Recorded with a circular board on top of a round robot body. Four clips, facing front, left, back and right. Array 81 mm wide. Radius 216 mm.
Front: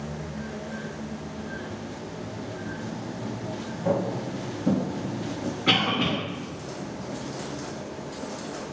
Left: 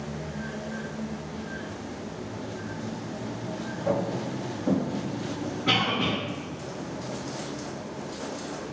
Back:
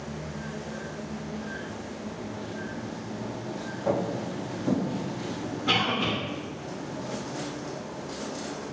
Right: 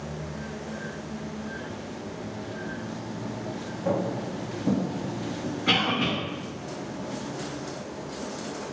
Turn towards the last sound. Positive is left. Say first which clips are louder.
# right 1 dB, front 2 dB
turn(degrees=-5)